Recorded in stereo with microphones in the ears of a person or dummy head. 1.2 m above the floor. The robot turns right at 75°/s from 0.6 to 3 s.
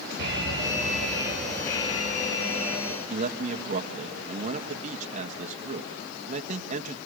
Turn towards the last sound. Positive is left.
turn(degrees=-45)  # may be behind; listen again after turning